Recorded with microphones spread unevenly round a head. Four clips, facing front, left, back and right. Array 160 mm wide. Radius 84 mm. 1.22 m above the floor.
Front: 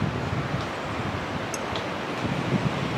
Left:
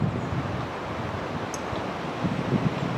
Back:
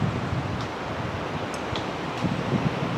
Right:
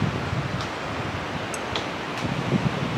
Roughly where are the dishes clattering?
Ahead right.